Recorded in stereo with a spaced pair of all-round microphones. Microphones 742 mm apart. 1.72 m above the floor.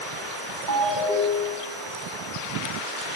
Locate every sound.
0.7 s a ringtone: 70° right (ahead or behind), 6.5 m